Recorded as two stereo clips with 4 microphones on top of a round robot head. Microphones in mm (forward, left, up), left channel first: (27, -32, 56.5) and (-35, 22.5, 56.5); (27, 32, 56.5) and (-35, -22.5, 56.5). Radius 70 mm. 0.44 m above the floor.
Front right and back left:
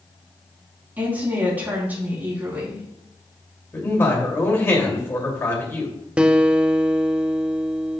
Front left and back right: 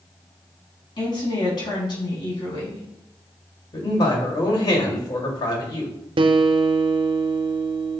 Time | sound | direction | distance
1.0 | a woman speaking | 70° left | 4 m
3.7 | a man speaking | 20° left | 2.5 m
6.2 | a guitar | 145° right | 0.6 m